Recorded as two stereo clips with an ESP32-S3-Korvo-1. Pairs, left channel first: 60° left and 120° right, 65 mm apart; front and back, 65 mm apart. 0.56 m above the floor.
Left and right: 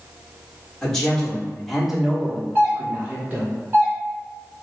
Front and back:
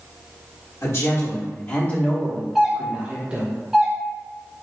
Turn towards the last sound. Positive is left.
turn(degrees=-95)